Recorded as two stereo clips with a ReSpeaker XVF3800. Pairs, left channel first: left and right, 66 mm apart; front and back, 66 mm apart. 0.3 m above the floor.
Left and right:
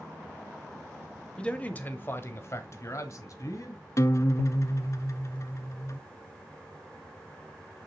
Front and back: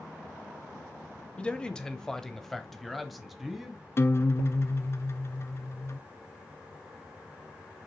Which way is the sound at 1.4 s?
45° left.